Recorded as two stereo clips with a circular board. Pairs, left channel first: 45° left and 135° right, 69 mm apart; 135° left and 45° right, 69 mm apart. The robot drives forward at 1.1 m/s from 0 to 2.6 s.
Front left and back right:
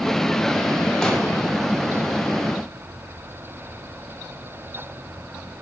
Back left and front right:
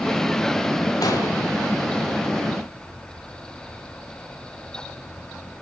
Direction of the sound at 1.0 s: 125° left.